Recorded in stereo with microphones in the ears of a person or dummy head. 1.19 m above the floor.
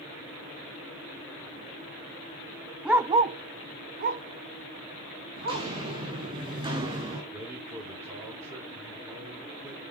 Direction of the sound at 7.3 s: 20° right (ahead or behind).